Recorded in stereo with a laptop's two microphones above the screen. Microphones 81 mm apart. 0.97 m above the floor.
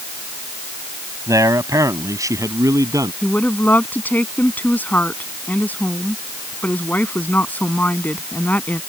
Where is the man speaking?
45° right (ahead or behind).